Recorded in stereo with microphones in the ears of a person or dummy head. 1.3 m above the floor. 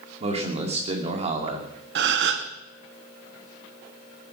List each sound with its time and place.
0.2 s a man speaking: 35° right (ahead or behind), 3 m
1.9 s a gasp: 75° right (ahead or behind), 1.3 m